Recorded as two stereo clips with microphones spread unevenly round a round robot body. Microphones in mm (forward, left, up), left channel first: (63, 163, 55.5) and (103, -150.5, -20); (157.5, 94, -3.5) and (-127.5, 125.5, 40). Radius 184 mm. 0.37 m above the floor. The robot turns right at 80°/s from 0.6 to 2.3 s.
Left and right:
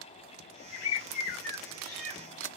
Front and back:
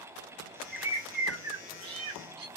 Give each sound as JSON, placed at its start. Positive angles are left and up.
{"t": 0.7, "sound": "a bird", "azimuth_deg": 80, "distance_m": 0.9}